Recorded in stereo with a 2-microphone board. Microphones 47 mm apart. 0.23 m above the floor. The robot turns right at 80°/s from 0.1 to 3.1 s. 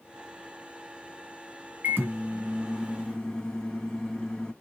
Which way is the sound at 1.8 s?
85° right.